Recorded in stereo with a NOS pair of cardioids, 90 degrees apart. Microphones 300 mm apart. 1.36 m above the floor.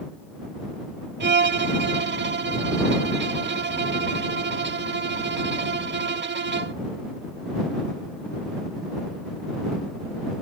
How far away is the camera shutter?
I don't hear a camera shutter.